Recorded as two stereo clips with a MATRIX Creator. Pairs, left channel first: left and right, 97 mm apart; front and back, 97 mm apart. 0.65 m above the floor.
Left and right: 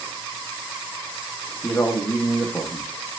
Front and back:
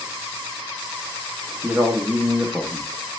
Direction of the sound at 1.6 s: 130° left.